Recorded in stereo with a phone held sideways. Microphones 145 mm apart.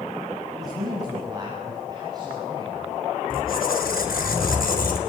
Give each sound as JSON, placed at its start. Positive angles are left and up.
{"t": 0.6, "sound": "a man speaking", "side_deg": -25, "distance_m": 9.0}
{"t": 3.3, "sound": "a squeak", "side_deg": 85, "distance_m": 3.5}